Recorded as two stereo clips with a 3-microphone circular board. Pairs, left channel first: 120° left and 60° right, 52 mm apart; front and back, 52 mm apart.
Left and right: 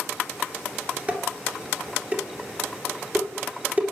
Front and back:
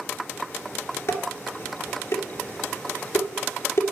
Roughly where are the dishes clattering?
Ahead.